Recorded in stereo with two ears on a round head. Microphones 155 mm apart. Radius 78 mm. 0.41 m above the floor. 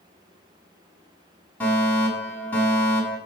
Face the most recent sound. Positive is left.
turn(degrees=10)  # may be behind; listen again after turning